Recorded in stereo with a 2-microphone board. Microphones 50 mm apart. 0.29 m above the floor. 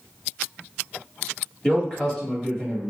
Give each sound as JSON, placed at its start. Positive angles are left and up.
{"t": 1.6, "sound": "a man speaking", "side_deg": 25, "distance_m": 1.3}